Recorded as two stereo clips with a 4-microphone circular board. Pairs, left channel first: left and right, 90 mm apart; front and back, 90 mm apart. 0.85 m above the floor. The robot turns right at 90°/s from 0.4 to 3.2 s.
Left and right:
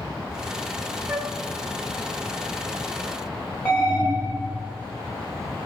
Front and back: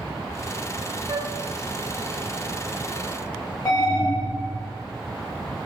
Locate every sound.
1.1 s a flute: 170° right, 0.6 m; by 1.3 s 145° right, 0.6 m
3.6 s an alarm: 35° left, 1.9 m